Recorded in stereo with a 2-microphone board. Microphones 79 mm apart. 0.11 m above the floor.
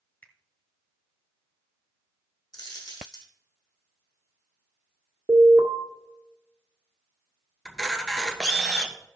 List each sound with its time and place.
0.2 s a finger snap: 25° left (ahead or behind), 1.7 m
2.5 s a dropped coin: 70° left (ahead or behind), 2 m
5.3 s an alarm: 40° right (ahead or behind), 1.4 m
7.7 s a camera shutter: 5° left (ahead or behind), 1.3 m